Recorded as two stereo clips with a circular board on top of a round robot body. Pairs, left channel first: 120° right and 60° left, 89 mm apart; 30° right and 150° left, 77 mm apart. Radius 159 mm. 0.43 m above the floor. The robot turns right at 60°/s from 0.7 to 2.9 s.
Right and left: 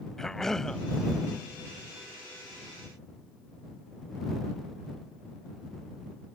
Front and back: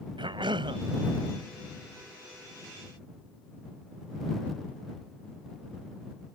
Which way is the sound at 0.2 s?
155° left.